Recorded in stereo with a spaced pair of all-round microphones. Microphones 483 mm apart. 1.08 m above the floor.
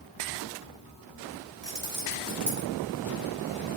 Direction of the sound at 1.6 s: 20° left (ahead or behind).